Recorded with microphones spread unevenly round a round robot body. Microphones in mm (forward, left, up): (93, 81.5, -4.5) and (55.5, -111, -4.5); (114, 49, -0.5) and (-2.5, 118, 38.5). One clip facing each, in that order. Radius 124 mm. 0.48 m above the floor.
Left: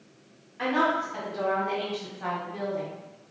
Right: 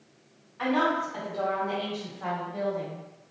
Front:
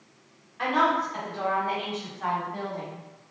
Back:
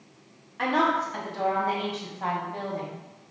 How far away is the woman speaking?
About 1.7 m.